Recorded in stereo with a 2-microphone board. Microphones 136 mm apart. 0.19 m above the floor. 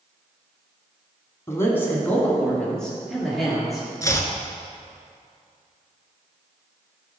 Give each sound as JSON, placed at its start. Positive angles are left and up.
{"t": 1.5, "sound": "a man speaking", "side_deg": 20, "distance_m": 1.5}
{"t": 4.0, "sound": "chopping", "side_deg": 25, "distance_m": 0.8}